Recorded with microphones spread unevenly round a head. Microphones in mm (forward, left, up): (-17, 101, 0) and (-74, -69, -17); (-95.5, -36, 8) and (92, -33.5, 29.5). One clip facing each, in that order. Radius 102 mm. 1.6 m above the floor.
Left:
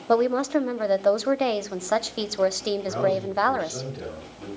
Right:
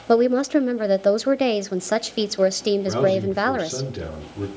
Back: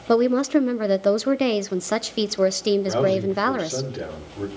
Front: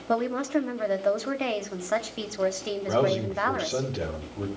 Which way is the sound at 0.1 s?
165° right.